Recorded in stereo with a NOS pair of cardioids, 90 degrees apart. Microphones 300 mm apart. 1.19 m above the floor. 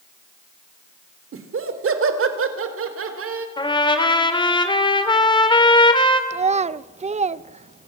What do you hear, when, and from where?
1.3 s laughter: 45° right, 3 m
3.6 s a trumpet: 15° left, 3 m
6.3 s a child speaking: 20° right, 0.7 m